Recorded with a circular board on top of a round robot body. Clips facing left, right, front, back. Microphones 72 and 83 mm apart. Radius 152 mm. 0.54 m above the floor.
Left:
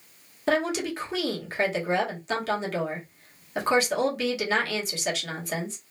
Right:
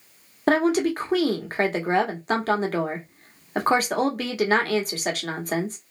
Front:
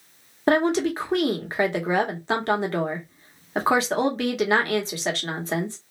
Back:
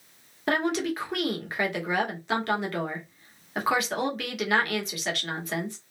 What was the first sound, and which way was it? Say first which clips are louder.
A woman speaking: right 5 dB, front 6 dB; 55° right.